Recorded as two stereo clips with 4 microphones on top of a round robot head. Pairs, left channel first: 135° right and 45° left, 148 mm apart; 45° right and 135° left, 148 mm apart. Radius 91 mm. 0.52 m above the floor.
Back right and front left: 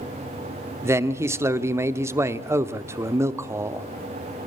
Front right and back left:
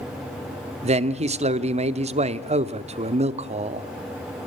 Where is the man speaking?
110° left, 1.1 m.